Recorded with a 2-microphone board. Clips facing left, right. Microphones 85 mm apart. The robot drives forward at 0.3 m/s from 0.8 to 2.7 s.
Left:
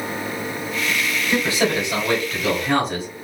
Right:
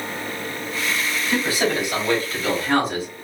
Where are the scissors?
No scissors in this recording.